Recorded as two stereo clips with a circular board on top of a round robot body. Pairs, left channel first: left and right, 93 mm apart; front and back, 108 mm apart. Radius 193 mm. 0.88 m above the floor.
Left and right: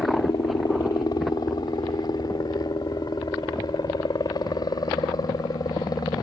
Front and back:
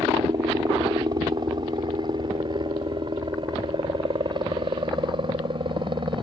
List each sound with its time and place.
0.0 s a helicopter: 135° left; by 6.2 s 140° left